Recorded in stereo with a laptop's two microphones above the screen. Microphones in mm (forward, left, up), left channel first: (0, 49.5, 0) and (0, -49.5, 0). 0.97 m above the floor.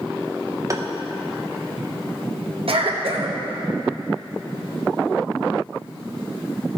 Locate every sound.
0.7 s tapping: 30° right (ahead or behind), 0.7 m
2.7 s a cough: 70° right (ahead or behind), 1.0 m